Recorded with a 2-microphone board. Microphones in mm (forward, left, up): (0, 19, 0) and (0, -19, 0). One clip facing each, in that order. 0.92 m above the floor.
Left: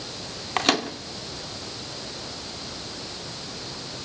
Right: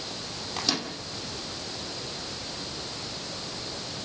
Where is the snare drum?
No snare drum in this recording.